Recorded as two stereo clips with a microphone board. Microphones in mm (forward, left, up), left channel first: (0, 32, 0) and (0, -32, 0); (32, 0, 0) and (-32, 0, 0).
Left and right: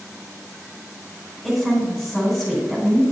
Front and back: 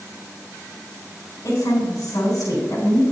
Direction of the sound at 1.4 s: 10° left.